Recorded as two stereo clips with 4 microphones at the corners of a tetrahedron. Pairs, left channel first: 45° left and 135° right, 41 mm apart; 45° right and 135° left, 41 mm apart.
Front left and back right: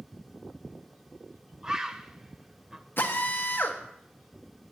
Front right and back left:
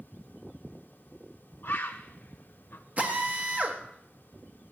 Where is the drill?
80° left, 1.2 m.